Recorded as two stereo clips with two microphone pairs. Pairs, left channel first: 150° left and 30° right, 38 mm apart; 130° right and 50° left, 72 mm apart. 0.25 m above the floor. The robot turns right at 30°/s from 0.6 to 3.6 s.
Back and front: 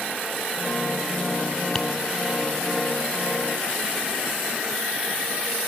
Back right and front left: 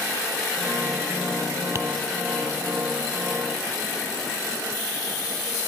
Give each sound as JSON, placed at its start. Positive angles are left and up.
{"t": 1.8, "sound": "tapping", "azimuth_deg": 85, "distance_m": 0.6}